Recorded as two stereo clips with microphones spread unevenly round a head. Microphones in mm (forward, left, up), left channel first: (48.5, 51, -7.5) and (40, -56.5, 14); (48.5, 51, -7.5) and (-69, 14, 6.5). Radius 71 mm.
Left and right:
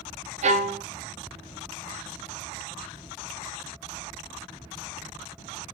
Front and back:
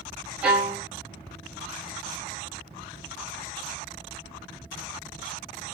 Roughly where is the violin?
Right.